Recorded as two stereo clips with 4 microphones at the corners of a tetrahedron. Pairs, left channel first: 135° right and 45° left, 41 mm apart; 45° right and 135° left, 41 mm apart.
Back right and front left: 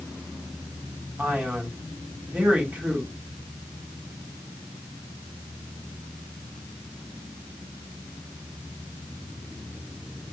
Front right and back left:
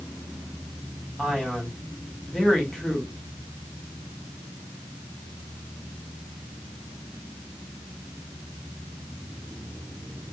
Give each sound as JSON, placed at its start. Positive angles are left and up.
{"t": 1.2, "sound": "a man speaking", "azimuth_deg": 35, "distance_m": 1.8}